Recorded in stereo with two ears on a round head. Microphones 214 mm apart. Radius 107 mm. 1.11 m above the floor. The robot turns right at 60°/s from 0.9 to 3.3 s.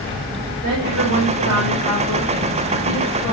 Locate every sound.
0.6 s a woman speaking: 110° right, 7 m; by 3.3 s 35° left, 7 m